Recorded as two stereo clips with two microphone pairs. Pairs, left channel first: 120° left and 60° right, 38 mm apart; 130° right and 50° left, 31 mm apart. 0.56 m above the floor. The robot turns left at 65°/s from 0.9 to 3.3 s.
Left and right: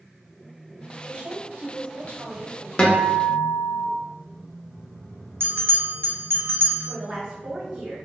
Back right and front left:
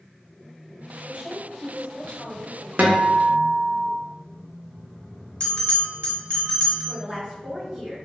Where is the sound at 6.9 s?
5° right, 1.9 m.